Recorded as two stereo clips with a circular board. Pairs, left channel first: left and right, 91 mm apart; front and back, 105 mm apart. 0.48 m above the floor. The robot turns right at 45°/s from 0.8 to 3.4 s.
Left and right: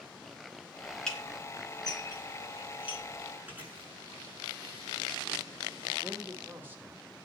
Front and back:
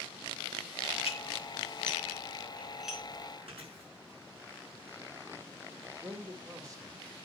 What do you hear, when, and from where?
1.1 s dishes clattering: 10° left, 3.5 m; by 3.0 s 100° left, 3.5 m
3.5 s chewing: 160° right, 7 m
6.0 s a man speaking: 145° right, 1.8 m